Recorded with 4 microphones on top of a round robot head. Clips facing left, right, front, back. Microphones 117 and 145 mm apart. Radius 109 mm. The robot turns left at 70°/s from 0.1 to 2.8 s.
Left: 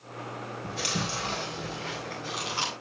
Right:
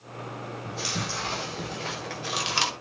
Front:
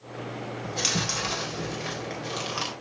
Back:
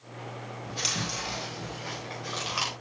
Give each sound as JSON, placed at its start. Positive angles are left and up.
{"t": 0.6, "sound": "chewing", "azimuth_deg": 45, "distance_m": 3.5}